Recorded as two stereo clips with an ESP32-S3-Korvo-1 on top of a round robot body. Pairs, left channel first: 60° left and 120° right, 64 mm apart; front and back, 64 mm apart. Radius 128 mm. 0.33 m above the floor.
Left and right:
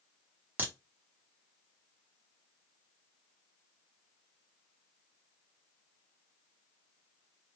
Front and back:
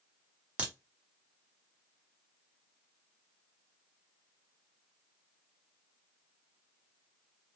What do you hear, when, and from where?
0.6 s a crack: 135° right, 1.2 m